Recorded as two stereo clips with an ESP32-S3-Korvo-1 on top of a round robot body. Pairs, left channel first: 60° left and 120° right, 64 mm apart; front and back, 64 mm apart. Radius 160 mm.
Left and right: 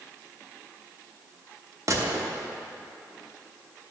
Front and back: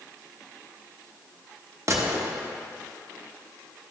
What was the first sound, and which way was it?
A gunshot, 145° right.